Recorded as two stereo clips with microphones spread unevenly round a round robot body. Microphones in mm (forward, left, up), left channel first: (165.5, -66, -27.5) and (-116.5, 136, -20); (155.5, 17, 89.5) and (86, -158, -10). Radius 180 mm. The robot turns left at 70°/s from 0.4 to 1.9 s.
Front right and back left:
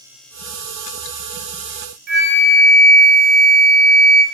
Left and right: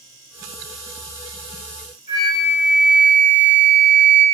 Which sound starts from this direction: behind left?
A flute, at 2.1 s.